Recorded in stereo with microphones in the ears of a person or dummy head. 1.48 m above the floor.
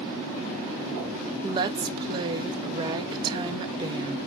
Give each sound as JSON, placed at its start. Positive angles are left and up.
{"t": 1.4, "sound": "a woman speaking", "side_deg": -25, "distance_m": 0.6}